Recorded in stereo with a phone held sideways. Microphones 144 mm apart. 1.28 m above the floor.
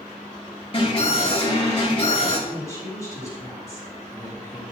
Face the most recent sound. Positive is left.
turn(degrees=25)  # may be behind; listen again after turning